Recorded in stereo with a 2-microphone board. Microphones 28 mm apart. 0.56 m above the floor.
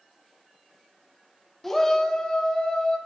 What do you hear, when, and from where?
1.6 s a shout: 10° left (ahead or behind), 0.6 m; by 3.0 s 30° left (ahead or behind), 1.9 m